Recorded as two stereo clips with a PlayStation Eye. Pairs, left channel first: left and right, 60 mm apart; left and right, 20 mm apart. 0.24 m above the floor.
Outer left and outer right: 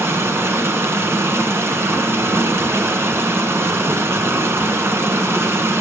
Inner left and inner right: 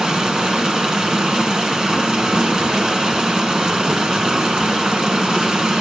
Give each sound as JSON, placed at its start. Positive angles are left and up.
{"t": 0.0, "sound": "running water", "side_deg": -45, "distance_m": 1.3}